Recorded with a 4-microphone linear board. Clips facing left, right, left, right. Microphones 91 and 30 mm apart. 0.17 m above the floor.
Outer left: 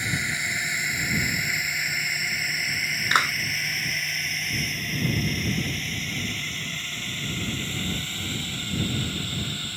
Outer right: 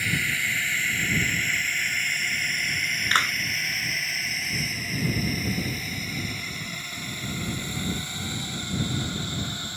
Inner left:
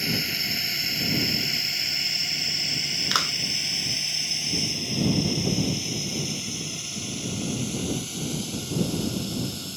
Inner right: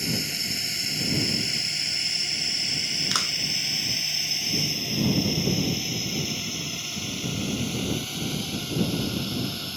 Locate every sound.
0.0 s a drone: 20° left (ahead or behind); by 9.8 s 20° right (ahead or behind)
3.1 s a clap: 15° left (ahead or behind)